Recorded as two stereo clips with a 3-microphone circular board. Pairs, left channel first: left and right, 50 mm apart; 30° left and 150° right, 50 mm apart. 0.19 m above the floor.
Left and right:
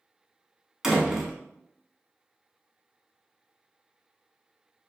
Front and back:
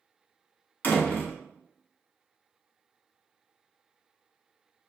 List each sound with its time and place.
0.8 s a door slam: 10° right, 1.1 m